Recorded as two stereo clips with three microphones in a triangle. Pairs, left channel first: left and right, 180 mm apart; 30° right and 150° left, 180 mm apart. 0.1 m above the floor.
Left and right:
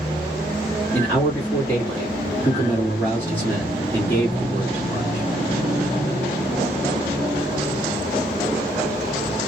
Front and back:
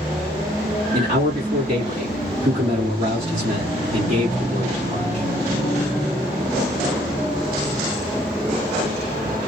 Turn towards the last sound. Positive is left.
turn(degrees=165)